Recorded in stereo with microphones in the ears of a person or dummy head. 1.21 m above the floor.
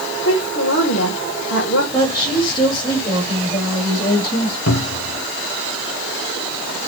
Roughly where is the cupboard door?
Left.